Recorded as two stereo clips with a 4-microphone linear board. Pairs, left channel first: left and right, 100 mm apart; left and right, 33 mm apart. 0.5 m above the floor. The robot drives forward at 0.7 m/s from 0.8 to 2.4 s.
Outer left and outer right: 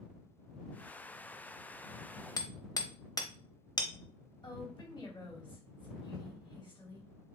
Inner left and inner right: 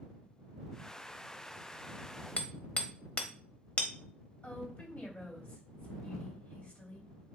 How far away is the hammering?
About 0.7 m.